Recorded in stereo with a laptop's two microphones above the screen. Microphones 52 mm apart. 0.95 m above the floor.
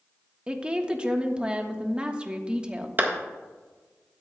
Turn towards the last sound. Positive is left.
turn(degrees=-35)  # may be behind; listen again after turning